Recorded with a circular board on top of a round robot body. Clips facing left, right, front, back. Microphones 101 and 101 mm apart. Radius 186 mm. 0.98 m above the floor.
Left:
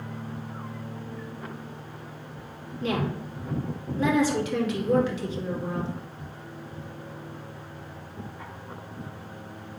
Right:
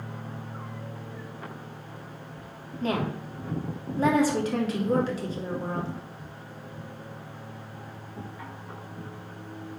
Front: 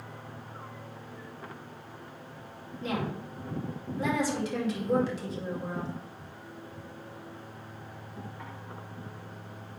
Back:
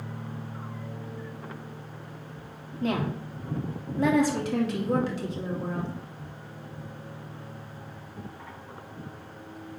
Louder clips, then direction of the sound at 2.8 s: Even, back 4 dB; 145° right.